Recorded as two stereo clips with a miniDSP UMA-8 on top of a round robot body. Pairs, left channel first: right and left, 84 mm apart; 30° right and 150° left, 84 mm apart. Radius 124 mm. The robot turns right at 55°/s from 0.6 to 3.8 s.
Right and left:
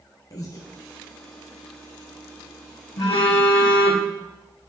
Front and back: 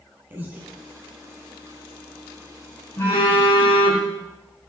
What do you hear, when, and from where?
0.3 s breathing: 140° right, 0.9 m
3.0 s a phone buzzing: 90° right, 3 m; by 4.1 s 45° right, 3 m